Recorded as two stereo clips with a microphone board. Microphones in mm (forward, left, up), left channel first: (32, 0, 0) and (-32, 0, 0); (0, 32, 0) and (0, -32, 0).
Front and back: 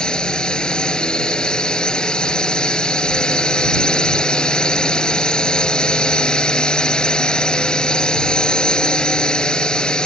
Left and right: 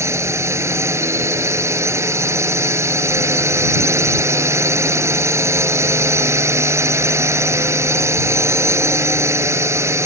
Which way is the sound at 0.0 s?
70° right.